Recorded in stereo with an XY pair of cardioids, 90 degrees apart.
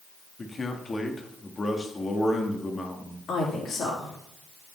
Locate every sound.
0.4 s a man speaking: 35° left, 1.8 m
3.3 s a woman speaking: 65° left, 3.5 m